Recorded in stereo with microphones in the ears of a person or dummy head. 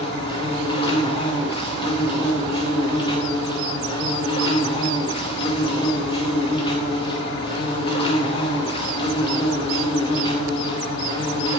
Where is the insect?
30° left (ahead or behind), 1.2 m.